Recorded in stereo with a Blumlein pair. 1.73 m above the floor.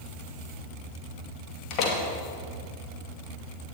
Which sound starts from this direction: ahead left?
A door slam, at 1.7 s.